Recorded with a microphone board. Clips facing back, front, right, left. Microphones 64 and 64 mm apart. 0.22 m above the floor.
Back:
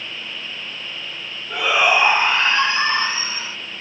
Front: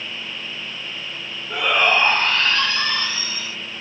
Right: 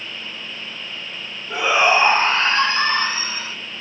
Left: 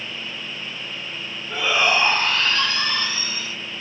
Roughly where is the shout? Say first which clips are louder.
Back 1 dB, right 4 dB; right.